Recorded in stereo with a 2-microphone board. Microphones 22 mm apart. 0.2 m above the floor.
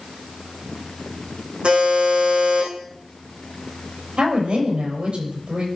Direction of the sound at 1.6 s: 60° right (ahead or behind).